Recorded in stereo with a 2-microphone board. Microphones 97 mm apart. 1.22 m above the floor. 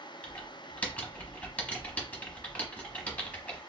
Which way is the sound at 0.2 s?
15° left (ahead or behind).